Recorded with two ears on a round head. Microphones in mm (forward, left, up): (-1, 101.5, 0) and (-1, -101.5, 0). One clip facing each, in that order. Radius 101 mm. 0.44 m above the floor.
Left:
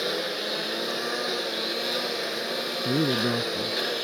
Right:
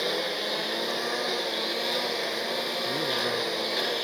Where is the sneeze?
No sneeze in this recording.